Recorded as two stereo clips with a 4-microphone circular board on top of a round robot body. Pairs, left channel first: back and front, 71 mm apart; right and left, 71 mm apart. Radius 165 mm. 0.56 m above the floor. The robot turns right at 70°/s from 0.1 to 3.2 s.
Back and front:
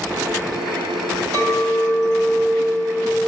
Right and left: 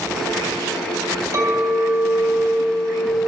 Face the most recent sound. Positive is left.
turn(degrees=170)